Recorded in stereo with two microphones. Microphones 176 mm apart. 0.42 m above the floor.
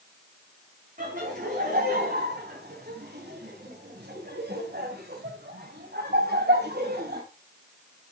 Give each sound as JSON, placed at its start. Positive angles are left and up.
{"t": 1.0, "sound": "laughter", "side_deg": -50, "distance_m": 4.0}